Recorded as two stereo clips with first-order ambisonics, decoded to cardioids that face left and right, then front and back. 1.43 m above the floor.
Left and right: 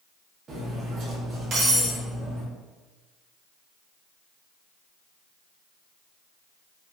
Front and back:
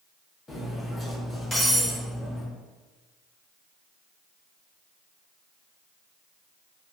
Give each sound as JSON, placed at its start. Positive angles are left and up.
{"t": 0.5, "sound": "cutlery clinking", "azimuth_deg": -70, "distance_m": 0.6}